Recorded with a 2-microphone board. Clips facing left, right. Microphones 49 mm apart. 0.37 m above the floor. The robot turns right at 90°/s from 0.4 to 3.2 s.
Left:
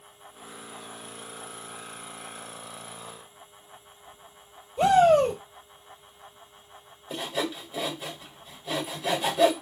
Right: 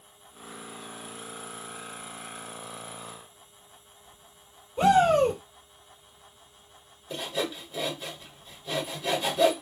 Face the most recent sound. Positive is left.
turn(degrees=10)  # may be behind; listen again after turning